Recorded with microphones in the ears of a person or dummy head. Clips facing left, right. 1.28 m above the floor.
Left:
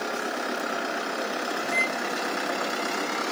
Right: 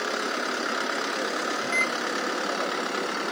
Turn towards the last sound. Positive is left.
turn(degrees=-55)  # may be behind; listen again after turning